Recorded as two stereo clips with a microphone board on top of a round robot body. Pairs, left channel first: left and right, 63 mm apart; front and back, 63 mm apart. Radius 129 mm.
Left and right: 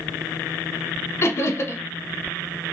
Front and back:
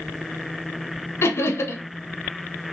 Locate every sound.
1.2 s laughter: 45° left, 0.8 m